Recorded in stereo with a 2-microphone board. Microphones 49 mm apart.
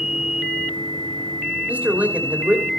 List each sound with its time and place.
1.7 s a man speaking: 35° right (ahead or behind), 2.5 m